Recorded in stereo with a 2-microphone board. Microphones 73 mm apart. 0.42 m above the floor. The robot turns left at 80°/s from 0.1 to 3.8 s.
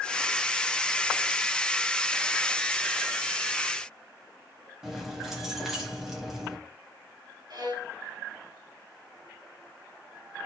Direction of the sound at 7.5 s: 60° right (ahead or behind).